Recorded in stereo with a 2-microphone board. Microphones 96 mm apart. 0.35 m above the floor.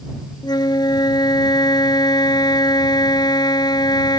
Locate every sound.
0.4 s a flute: 50° left (ahead or behind)